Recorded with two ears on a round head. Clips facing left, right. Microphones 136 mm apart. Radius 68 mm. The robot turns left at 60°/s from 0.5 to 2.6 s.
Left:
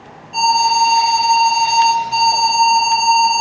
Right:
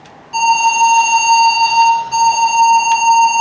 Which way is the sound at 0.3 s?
100° right.